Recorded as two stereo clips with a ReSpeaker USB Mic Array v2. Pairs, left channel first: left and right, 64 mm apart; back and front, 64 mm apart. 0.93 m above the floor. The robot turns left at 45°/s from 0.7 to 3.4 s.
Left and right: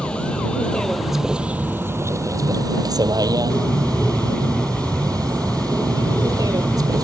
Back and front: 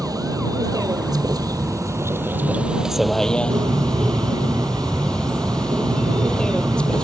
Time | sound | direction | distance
0.0 | a vehicle | 15° left | ?
3.5 | a bird | 15° left | ?